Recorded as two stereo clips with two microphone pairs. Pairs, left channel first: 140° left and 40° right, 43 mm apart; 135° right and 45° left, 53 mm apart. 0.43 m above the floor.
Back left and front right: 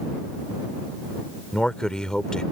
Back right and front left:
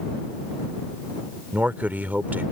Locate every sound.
1.5 s a man speaking: 75° left